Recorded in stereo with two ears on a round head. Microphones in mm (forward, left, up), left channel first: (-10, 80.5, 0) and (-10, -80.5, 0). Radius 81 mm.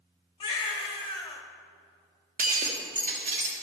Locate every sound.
0.4 s a baby crying: 25° left (ahead or behind), 1.0 m
2.4 s breaking glass: 45° right (ahead or behind), 1.2 m